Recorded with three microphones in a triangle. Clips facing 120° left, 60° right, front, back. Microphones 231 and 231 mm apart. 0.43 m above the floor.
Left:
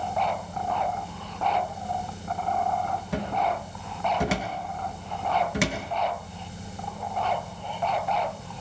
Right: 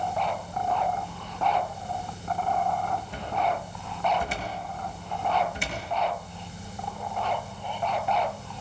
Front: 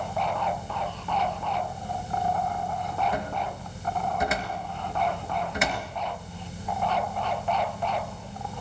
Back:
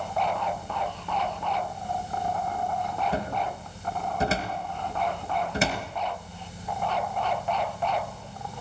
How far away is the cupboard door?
About 5 m.